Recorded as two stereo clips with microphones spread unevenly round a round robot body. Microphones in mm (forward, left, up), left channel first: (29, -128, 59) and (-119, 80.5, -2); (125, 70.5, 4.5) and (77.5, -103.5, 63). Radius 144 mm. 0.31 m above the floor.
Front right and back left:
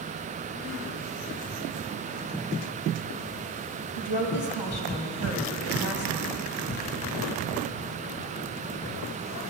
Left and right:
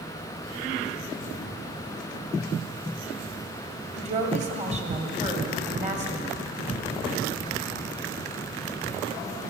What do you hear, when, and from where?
4.0 s a woman speaking: 45° right, 2 m